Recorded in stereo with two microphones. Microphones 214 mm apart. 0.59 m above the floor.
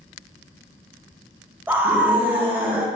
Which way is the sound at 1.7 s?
10° right (ahead or behind).